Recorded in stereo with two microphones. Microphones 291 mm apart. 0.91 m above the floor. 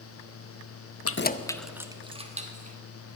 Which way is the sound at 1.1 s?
55° left (ahead or behind).